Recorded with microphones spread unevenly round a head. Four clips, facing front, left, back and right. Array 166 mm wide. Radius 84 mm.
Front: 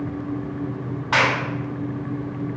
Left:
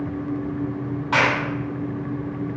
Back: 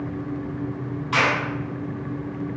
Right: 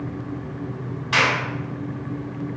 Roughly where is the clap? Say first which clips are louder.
Left 1 dB, front 2 dB; ahead left.